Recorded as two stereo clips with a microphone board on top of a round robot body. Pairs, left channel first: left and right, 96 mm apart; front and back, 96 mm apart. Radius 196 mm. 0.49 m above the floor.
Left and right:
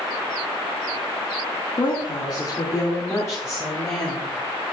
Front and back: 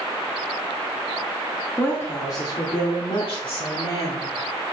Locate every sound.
1.8 s a woman speaking: 65° left, 2.0 m; by 4.3 s 15° left, 3 m